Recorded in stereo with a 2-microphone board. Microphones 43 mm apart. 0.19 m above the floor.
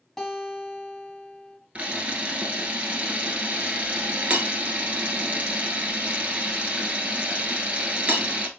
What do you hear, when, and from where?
0.2 s a guitar: 5° left (ahead or behind), 1.2 m
1.8 s a camera shutter: 30° right (ahead or behind), 1.1 m